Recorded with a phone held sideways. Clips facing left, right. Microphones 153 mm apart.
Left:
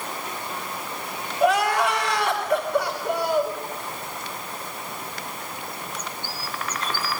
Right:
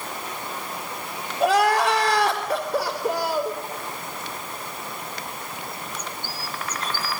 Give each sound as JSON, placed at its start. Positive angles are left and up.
{"t": 1.4, "sound": "crying", "side_deg": -35, "distance_m": 4.0}